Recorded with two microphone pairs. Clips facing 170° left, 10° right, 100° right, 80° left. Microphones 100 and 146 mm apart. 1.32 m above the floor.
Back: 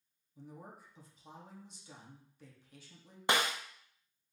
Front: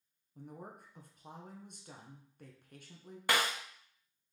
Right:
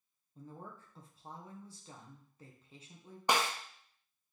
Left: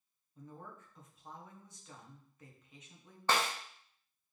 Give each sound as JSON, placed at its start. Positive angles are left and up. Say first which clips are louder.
{"t": 0.3, "sound": "a woman speaking", "louder": "front 2 dB, right 1 dB", "azimuth_deg": -40, "distance_m": 1.0}
{"t": 3.3, "sound": "a snare drum", "louder": "back 1 dB, right 1 dB", "azimuth_deg": -155, "distance_m": 0.7}